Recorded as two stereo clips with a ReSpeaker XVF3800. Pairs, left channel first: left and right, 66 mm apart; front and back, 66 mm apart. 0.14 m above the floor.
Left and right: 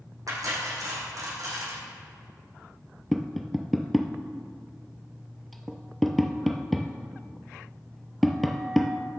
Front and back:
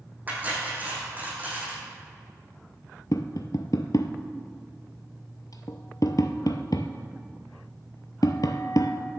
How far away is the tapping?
About 0.9 m.